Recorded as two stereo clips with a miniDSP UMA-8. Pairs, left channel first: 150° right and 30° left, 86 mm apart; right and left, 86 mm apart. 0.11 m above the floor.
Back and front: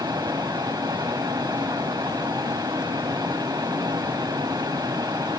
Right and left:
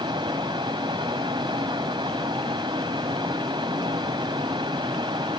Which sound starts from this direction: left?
Running water, at 0.0 s.